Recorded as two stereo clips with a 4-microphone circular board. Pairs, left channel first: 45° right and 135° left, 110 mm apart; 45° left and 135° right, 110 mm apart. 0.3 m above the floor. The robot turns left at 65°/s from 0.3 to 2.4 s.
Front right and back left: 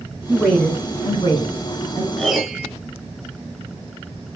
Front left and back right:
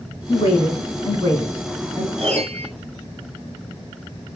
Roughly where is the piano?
Behind right.